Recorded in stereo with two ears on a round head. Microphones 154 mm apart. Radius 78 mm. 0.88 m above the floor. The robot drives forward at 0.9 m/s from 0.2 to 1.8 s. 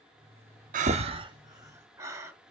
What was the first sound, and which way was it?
Breathing, 50° right (ahead or behind).